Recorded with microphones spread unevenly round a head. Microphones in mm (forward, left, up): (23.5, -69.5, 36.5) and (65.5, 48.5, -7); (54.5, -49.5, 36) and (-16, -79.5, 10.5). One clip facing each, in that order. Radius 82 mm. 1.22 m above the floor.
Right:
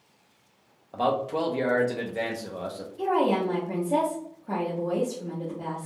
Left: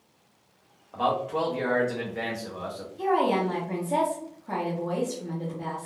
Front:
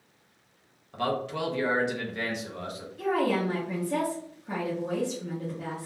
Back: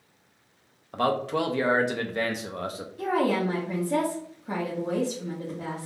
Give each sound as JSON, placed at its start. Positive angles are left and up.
{"t": 0.9, "sound": "a man speaking", "azimuth_deg": 180, "distance_m": 0.6}
{"t": 3.0, "sound": "a woman speaking", "azimuth_deg": 165, "distance_m": 0.7}